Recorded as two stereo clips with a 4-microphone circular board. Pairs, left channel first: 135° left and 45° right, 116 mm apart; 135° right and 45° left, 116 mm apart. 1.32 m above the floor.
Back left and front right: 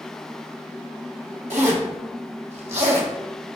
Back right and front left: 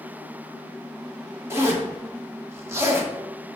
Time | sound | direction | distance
1.5 | a zipper | 20° right | 1.7 m